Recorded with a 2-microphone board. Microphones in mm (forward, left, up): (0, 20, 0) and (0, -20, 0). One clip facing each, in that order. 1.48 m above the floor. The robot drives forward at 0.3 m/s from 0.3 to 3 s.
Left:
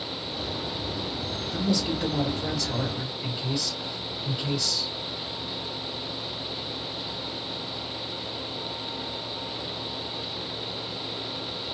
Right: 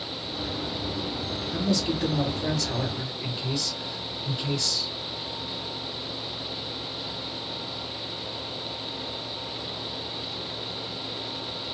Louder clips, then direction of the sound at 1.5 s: Even; 25° left (ahead or behind).